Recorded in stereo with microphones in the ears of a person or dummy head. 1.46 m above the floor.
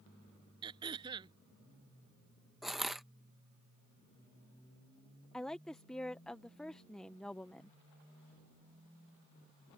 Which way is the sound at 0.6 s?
20° right (ahead or behind).